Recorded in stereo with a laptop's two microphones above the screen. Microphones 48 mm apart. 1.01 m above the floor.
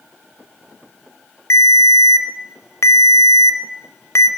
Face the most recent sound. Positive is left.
turn(degrees=70)  # may be behind; listen again after turning